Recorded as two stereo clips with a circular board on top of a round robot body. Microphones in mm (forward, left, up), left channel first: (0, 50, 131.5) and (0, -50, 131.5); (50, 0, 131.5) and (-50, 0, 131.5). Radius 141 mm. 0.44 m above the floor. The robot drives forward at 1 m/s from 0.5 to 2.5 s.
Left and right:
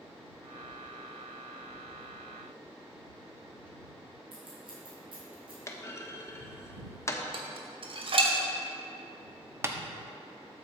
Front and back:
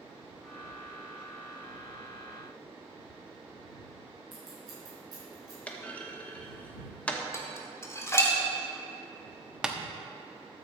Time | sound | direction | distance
4.3 | scissors | 125° right | 4 m
5.7 | a clunk | 65° left | 1.4 m
7.3 | dishes clattering | 65° right | 1.4 m
9.6 | tapping | 105° right | 1.2 m